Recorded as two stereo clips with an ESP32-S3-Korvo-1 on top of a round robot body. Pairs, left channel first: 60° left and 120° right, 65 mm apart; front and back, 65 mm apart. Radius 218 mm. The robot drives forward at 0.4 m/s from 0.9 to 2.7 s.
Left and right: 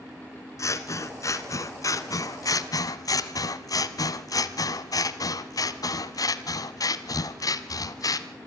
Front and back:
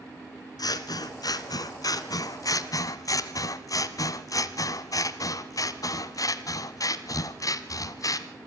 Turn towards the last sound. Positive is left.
turn(degrees=35)